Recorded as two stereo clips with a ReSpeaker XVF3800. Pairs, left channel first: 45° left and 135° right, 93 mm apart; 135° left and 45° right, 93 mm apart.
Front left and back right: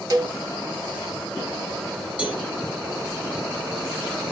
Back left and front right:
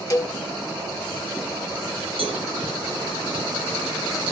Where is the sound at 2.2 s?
60° right, 2 m.